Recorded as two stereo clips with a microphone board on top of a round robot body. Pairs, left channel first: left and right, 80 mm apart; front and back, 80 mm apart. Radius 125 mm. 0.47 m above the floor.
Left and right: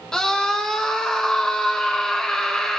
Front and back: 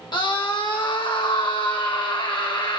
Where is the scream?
10° left, 2.5 m.